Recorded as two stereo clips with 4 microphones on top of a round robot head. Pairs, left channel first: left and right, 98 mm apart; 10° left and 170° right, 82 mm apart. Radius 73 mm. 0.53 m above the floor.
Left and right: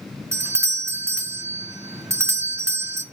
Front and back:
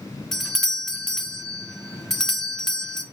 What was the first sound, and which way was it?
A doorbell, 70° right.